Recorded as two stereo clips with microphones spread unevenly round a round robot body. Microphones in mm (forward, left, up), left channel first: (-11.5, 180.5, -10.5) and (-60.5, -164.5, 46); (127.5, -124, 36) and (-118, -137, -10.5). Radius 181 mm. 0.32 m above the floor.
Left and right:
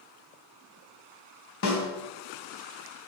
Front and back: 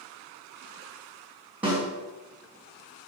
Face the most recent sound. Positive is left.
turn(degrees=105)